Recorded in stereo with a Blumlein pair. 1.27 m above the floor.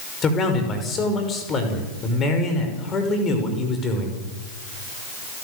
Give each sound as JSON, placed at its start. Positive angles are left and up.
{"t": 0.2, "sound": "a man speaking", "azimuth_deg": 25, "distance_m": 5.5}